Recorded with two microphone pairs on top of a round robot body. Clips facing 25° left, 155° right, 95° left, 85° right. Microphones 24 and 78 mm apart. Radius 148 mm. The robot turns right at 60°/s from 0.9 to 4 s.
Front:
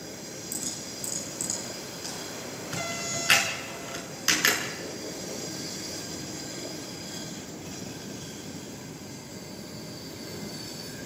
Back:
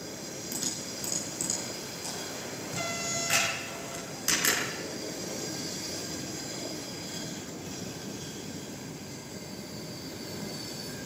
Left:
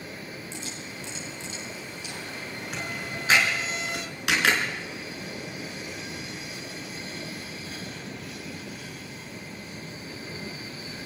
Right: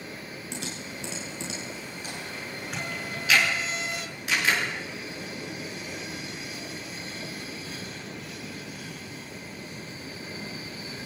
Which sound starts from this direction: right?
Typing on a keyboard, at 0.5 s.